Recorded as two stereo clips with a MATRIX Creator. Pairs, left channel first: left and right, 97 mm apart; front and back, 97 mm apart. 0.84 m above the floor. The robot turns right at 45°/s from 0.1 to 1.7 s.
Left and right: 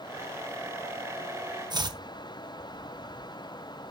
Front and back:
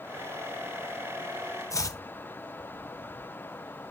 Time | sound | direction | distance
1.7 | chopping | 50° right | 0.6 m